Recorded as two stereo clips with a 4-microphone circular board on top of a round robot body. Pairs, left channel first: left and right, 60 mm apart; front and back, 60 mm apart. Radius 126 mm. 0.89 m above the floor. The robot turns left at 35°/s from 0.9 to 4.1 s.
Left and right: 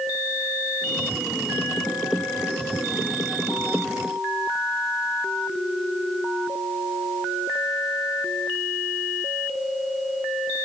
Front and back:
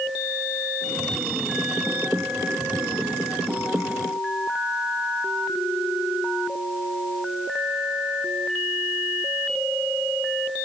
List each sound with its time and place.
Only background noise.